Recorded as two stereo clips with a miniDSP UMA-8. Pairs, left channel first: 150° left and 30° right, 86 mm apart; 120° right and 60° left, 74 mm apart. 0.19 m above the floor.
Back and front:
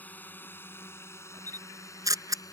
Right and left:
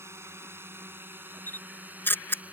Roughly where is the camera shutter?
Ahead right.